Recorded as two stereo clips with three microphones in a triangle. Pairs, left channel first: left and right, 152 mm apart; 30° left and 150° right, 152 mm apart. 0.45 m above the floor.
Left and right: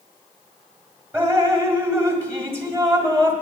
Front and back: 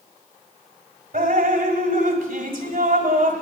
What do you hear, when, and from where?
1.1 s dripping: 160° right, 1.5 m